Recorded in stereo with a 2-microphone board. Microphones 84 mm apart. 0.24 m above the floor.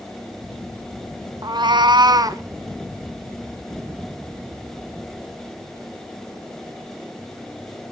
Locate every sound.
1.4 s a cat meowing: 50° right (ahead or behind), 0.9 m; by 2.4 s 40° right (ahead or behind), 1.4 m